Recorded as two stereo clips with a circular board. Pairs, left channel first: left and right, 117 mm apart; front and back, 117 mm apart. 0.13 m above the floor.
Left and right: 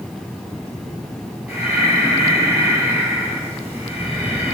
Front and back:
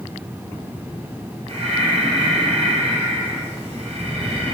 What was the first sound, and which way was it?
Breathing, 165° right.